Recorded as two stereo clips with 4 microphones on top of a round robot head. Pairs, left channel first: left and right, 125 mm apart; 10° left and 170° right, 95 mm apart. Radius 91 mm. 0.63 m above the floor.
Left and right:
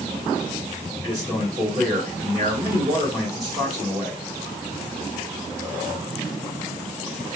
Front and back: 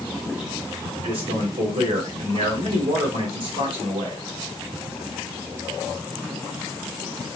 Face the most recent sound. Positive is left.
turn(degrees=-160)